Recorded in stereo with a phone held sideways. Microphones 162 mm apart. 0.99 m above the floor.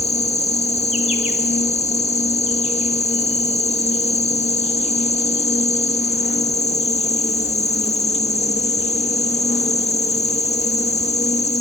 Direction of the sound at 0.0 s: 40° left (ahead or behind).